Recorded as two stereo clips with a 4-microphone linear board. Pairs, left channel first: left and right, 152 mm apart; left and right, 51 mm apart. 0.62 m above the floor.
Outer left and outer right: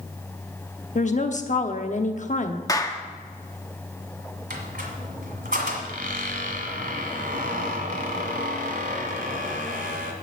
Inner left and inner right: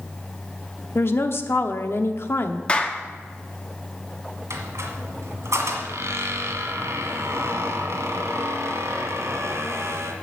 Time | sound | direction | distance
0.9 | a woman speaking | 55° left (ahead or behind) | 0.9 m
2.7 | a clap | 25° left (ahead or behind) | 1.0 m
4.5 | a squeak | 75° right (ahead or behind) | 1.7 m